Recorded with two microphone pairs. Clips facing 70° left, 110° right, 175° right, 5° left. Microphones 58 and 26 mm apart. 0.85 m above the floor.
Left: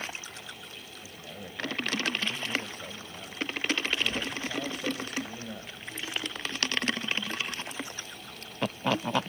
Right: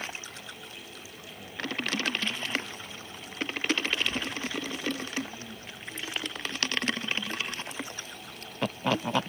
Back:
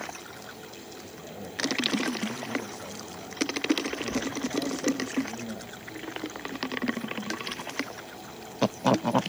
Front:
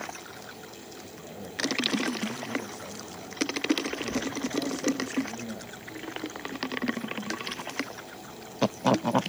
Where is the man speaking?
100° left, 5 m.